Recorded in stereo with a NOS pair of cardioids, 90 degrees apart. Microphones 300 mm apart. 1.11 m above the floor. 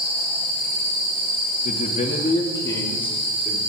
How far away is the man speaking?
About 2 m.